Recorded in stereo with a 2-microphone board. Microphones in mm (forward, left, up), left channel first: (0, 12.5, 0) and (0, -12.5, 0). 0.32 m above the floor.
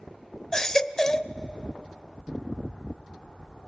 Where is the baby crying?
20° left (ahead or behind), 0.6 m.